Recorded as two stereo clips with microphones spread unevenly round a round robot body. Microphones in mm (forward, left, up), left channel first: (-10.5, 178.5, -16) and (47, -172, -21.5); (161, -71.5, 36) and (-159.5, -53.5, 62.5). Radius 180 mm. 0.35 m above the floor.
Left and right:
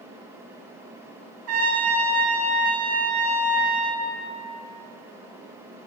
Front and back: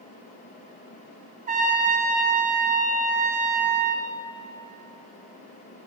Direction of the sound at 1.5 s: 120° right.